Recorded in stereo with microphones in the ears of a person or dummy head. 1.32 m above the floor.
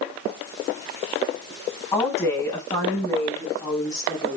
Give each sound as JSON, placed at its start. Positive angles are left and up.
{"t": 1.9, "sound": "a woman speaking", "side_deg": 15, "distance_m": 8.0}